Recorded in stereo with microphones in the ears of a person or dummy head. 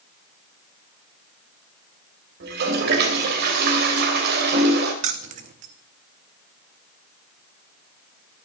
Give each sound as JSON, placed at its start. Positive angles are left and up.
{"t": 2.4, "sound": "a toilet flushing", "side_deg": -55, "distance_m": 3.0}
{"t": 5.0, "sound": "keys jangling", "side_deg": -35, "distance_m": 0.8}